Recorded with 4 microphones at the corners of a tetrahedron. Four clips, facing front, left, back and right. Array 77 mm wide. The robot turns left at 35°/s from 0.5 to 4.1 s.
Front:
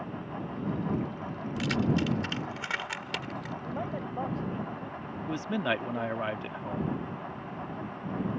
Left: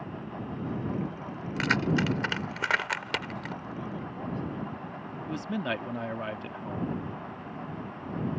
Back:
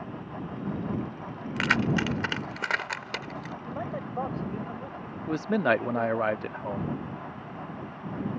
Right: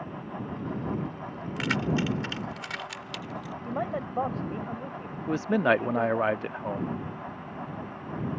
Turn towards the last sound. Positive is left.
turn(degrees=-120)